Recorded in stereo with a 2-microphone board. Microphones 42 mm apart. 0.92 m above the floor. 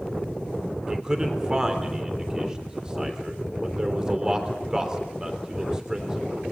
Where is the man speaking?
20° right (ahead or behind), 3 m.